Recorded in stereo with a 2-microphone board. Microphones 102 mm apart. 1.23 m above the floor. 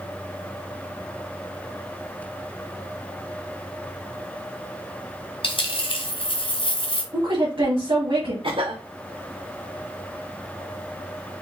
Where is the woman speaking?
55° right (ahead or behind), 1.4 m.